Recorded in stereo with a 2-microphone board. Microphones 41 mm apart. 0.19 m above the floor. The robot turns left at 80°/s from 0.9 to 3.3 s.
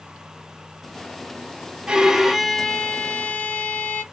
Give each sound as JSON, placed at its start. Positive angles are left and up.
{"t": 1.9, "sound": "a violin", "azimuth_deg": -140, "distance_m": 0.9}